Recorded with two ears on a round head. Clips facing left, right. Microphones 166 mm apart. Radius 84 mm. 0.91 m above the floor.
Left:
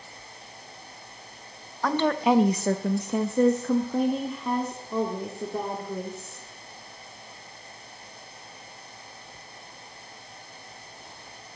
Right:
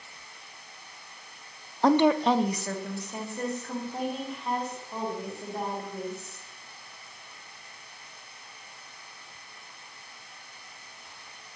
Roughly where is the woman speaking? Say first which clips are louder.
Right 2 dB; right.